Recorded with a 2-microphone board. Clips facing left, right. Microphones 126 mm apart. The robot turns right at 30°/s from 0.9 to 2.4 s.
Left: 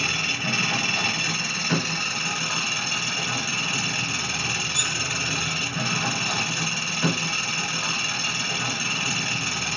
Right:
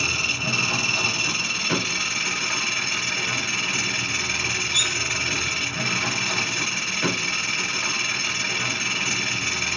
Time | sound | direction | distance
0.0 | an engine running | 40° right | 1.7 m
4.7 | cutlery clinking | 15° right (ahead or behind) | 0.6 m